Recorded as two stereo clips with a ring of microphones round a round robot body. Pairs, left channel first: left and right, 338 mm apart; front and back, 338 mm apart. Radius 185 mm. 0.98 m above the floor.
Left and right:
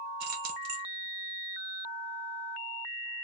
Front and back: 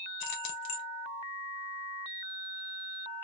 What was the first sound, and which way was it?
Keys jangling, 40° right.